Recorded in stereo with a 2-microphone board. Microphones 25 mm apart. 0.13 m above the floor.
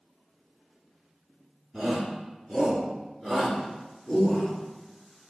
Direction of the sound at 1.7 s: 10° left (ahead or behind).